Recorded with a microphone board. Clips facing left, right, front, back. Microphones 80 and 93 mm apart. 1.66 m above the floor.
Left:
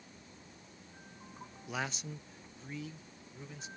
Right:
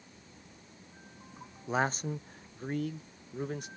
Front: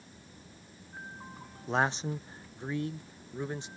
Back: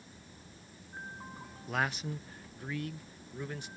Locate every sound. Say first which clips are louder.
1.7 s a man speaking: right 9 dB, front 5 dB; 45° right; by 3.7 s 65° right